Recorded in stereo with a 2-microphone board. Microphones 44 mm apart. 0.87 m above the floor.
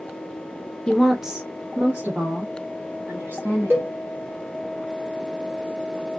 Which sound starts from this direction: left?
A woman speaking, at 0.9 s.